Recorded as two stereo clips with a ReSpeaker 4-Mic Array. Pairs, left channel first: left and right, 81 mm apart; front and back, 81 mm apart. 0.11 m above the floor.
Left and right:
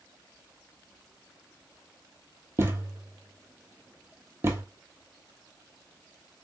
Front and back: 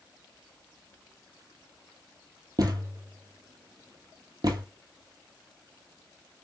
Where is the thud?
145° right, 1.0 m.